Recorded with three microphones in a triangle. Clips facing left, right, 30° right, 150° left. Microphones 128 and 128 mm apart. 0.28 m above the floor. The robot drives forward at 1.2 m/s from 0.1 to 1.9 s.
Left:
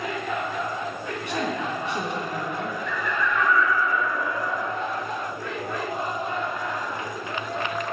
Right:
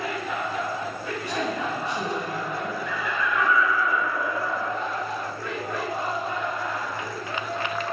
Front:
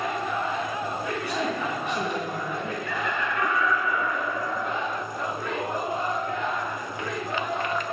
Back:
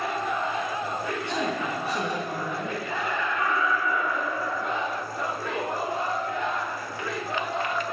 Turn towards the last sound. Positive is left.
turn(degrees=-10)